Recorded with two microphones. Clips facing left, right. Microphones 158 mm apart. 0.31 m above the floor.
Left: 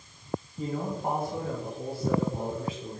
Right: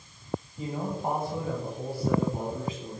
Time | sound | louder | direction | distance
0.6 | a man speaking | left 1 dB | 10° right (ahead or behind) | 2 m